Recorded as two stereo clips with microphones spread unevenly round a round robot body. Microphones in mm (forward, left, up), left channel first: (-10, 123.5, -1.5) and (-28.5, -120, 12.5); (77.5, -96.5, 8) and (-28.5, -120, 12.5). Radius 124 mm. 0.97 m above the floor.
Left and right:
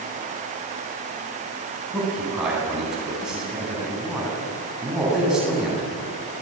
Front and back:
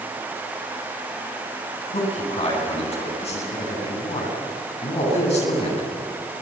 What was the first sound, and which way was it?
A man speaking, 5° right.